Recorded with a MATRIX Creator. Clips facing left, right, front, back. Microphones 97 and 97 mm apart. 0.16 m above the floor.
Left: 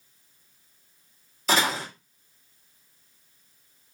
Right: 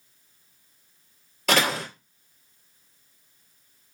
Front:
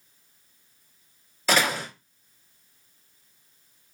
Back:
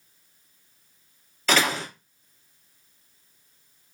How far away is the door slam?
About 2.5 m.